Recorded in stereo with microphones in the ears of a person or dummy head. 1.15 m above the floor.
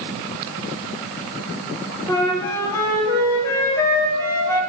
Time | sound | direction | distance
2.1 | a flute | 15° left (ahead or behind) | 0.6 m